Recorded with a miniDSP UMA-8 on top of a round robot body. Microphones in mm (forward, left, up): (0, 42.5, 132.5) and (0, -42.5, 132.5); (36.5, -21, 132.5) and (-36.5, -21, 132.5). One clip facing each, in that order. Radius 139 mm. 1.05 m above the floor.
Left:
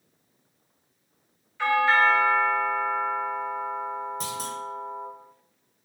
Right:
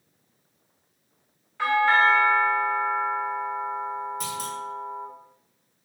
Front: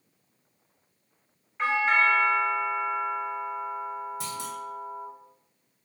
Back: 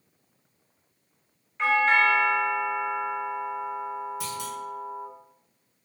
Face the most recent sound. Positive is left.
turn(degrees=40)